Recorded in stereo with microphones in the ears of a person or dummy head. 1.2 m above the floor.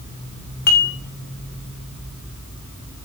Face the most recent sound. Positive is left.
turn(degrees=50)  # may be behind; listen again after turning